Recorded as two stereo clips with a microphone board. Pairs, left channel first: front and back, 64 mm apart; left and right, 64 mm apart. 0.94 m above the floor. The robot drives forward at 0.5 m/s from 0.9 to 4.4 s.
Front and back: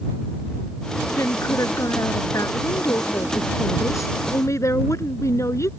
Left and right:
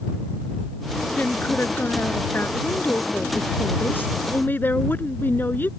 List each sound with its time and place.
1.2 s a woman speaking: 30° left; by 5.7 s 35° left